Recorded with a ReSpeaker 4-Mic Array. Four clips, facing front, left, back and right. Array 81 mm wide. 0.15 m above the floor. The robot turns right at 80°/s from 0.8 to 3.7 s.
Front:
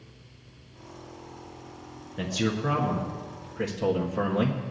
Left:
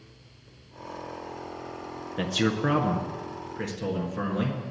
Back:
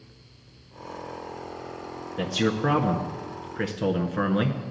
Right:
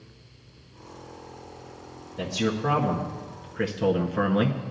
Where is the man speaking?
95° left, 1.6 m; by 4.6 s 140° right, 1.6 m.